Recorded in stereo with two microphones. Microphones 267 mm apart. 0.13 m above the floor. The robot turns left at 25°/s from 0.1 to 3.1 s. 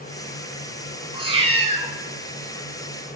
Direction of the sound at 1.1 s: 20° right (ahead or behind).